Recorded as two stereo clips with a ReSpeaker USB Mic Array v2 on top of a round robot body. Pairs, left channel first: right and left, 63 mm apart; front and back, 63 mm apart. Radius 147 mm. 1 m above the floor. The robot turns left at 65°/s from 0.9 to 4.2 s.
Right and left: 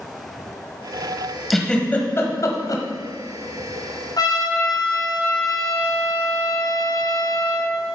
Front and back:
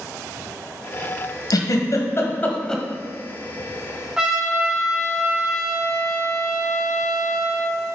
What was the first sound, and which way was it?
A giggle, 5° right.